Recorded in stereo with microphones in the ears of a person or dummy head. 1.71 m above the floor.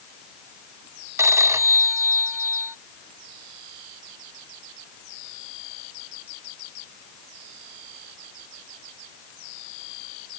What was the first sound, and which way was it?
A phone ringing, 15° right (ahead or behind).